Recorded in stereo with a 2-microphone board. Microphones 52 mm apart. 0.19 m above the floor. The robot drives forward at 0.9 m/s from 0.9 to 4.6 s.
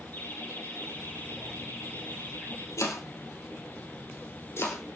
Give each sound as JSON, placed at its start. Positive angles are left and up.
{"t": 0.1, "sound": "laughter", "side_deg": 40, "distance_m": 8.5}
{"t": 2.8, "sound": "chopping", "side_deg": 75, "distance_m": 3.5}